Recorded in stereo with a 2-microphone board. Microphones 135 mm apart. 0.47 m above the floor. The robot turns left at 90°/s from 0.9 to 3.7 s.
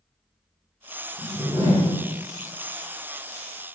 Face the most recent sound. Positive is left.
turn(degrees=130)